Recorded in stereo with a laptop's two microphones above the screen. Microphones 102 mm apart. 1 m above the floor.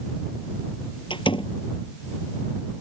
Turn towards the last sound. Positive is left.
turn(degrees=55)  # may be behind; listen again after turning